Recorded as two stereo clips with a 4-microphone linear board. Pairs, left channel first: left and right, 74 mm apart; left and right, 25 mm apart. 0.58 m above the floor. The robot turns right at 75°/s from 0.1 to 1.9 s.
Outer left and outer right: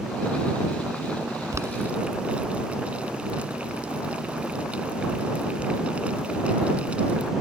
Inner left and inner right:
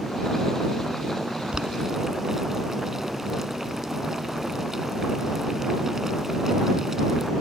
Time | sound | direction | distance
1.5 | boiling | 45° right (ahead or behind) | ?